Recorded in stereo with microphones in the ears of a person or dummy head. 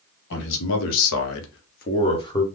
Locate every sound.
0.3 s a man speaking: 60° left (ahead or behind), 1.6 m; by 2.4 s 20° left (ahead or behind), 1.1 m